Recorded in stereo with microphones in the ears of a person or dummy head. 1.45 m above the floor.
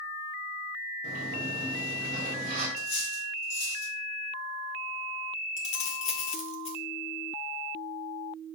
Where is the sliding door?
45° right (ahead or behind), 1.6 m.